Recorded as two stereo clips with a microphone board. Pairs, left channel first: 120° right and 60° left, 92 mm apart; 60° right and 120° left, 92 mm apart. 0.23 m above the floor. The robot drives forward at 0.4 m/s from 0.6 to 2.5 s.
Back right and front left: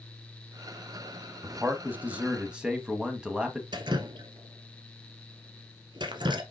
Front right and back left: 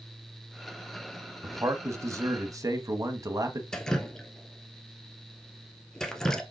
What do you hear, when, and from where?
1.4 s a man speaking: 100° left, 1.1 m; by 3.6 s 135° left, 1.2 m
3.7 s dripping: 25° left, 1.0 m